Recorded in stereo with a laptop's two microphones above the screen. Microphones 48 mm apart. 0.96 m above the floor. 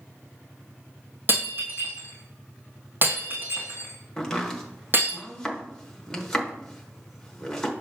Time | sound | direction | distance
1.3 | breaking glass | 40° right (ahead or behind) | 1.8 m
4.2 | chopping | 15° left (ahead or behind) | 0.9 m